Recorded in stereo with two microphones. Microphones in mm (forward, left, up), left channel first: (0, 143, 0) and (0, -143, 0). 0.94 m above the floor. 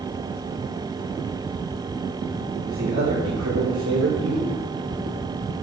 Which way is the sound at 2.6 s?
70° right (ahead or behind).